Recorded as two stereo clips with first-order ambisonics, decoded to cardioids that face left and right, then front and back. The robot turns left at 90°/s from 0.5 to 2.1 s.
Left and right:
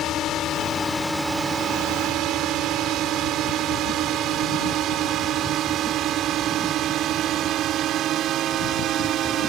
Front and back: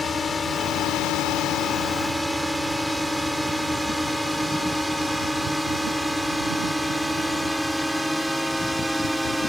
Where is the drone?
60° left; by 9.5 s 90° right.